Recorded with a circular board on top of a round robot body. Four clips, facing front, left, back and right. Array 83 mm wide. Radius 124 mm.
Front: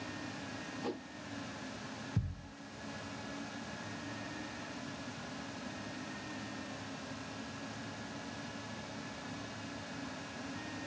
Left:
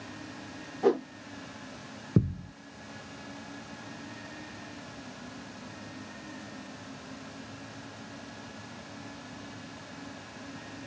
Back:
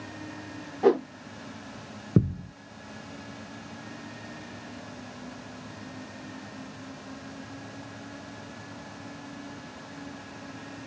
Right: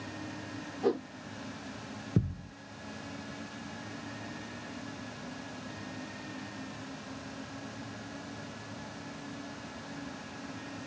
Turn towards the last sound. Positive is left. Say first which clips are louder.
# left 5 dB, back 17 dB
turn(degrees=160)